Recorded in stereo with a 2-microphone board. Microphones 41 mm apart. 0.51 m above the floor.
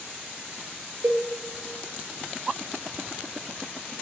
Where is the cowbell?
65° right (ahead or behind), 1.0 m.